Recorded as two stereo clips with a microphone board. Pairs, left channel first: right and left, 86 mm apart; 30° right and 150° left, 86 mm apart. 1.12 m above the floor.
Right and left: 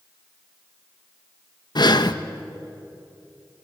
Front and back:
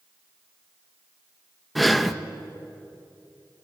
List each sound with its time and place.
1.8 s breathing: 120° right, 0.8 m